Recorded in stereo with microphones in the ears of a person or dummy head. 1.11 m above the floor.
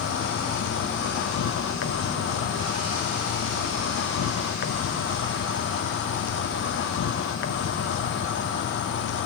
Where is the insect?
65° left (ahead or behind), 1.1 m.